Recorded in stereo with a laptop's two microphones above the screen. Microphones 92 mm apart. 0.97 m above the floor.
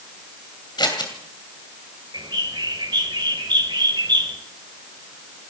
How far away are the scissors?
About 2.5 m.